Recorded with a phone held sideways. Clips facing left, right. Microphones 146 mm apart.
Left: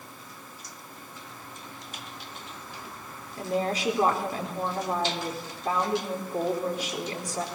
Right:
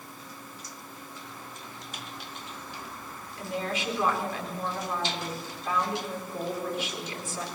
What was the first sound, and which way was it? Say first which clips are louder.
A woman speaking: left 5 dB; 40° left (ahead or behind).